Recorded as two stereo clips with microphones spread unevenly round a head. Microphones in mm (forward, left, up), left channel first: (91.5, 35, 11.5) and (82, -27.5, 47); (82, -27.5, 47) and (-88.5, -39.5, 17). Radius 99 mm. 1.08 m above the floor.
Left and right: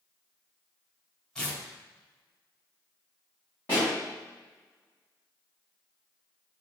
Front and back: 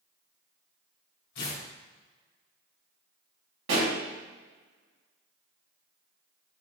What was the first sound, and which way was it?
Tearing paper, 5° right.